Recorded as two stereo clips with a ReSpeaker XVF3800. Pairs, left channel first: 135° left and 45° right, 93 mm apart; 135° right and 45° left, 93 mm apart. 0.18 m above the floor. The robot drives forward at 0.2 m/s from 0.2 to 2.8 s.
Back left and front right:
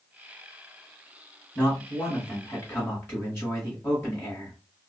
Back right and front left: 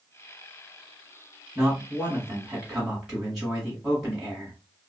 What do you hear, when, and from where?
1.6 s a man speaking: 100° left, 1.4 m; by 4.5 s 125° left, 1.4 m